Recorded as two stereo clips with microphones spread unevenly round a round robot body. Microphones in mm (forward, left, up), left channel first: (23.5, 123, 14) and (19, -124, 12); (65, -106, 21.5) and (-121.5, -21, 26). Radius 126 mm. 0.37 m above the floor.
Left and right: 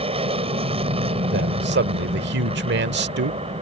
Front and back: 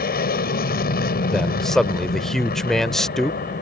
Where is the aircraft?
35° right.